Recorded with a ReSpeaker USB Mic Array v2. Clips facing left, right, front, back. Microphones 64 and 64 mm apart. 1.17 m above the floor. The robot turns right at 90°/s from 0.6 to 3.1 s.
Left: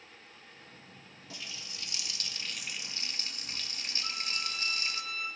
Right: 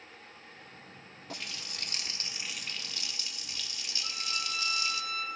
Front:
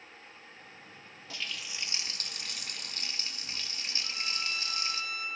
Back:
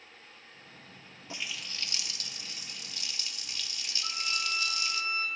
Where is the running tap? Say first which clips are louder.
Right 4 dB, even; 115° right, 0.7 m; by 5.0 s 50° left, 0.7 m.